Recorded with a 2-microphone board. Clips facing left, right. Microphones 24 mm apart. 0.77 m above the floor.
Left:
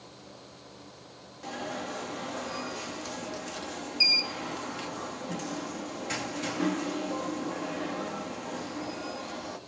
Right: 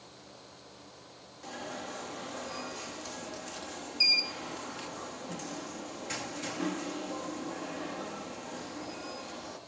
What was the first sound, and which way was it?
An alarm, 15° left (ahead or behind).